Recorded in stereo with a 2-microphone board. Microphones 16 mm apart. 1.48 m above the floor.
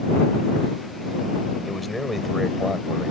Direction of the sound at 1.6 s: 5° left (ahead or behind).